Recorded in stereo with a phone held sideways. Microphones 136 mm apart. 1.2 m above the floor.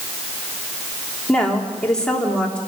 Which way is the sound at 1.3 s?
5° left (ahead or behind).